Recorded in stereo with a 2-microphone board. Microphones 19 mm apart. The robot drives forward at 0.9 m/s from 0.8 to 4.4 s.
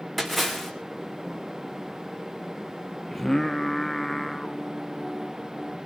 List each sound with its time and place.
0.2 s a splash: 10° left (ahead or behind), 3.5 m
3.1 s singing: 15° left (ahead or behind), 0.6 m; by 5.8 s 5° left (ahead or behind), 1.7 m